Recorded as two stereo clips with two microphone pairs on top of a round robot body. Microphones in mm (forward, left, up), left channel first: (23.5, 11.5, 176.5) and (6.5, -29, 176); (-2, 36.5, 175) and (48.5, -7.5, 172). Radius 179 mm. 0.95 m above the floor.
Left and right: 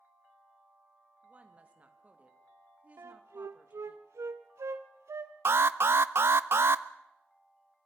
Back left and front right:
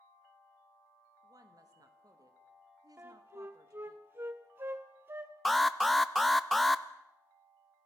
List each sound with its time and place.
1.2 s a woman speaking: 55° right, 2.5 m
3.0 s a flute: 100° right, 0.5 m
5.5 s an alarm: 130° right, 0.7 m